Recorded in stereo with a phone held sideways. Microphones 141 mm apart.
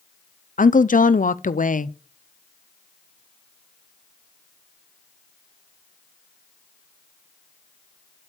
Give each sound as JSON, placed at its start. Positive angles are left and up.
{"t": 0.6, "sound": "a woman speaking", "side_deg": 70, "distance_m": 0.6}